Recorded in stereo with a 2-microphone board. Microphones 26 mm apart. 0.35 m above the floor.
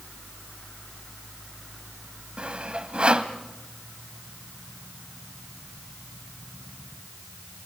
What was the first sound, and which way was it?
Sawing, 45° right (ahead or behind).